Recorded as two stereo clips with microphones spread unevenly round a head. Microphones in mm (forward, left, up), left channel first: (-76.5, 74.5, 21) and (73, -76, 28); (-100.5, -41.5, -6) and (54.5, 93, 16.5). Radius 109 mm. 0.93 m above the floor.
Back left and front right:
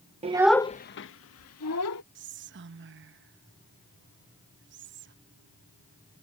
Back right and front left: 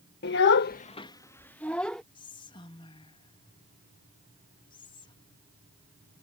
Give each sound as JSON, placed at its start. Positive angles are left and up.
{"t": 0.2, "sound": "a child speaking", "azimuth_deg": -105}
{"t": 2.1, "sound": "whispering", "azimuth_deg": -75}